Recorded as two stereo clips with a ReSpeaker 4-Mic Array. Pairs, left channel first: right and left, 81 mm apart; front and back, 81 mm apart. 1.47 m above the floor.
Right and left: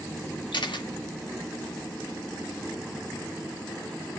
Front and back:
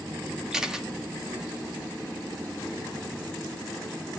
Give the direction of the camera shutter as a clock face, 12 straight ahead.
3 o'clock.